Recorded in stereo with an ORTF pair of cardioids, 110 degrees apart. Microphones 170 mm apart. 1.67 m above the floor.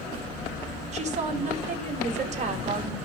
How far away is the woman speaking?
About 3 m.